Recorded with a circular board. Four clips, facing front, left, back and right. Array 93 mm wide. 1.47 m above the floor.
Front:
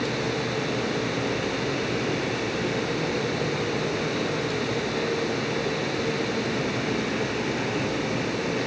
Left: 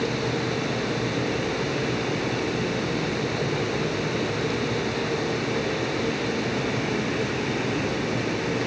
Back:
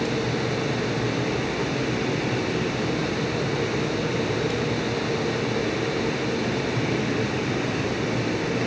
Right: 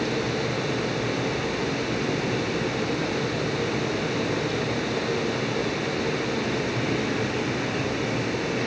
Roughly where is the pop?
I don't hear a pop.